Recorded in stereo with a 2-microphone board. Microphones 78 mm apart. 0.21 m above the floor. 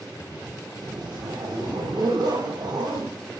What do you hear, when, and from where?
0.8 s a zipper: 75° right (ahead or behind), 9 m